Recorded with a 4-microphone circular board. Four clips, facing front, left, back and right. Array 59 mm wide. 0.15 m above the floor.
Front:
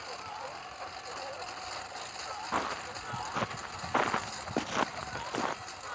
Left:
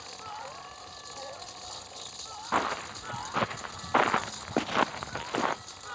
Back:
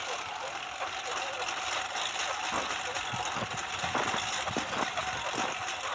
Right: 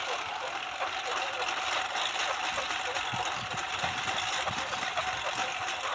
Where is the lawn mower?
120° right; by 6.0 s 125° right.